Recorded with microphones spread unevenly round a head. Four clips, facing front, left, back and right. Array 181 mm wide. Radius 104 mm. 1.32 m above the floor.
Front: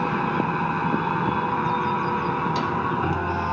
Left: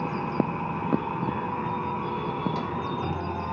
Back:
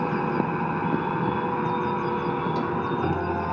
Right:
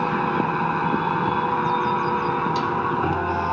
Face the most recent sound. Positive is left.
turn(degrees=-130)